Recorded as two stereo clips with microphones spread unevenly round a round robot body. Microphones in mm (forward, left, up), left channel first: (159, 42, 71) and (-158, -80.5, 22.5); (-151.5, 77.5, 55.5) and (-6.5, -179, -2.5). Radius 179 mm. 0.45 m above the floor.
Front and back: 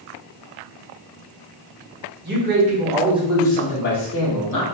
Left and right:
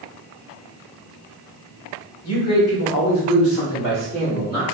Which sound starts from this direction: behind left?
A man speaking, at 2.2 s.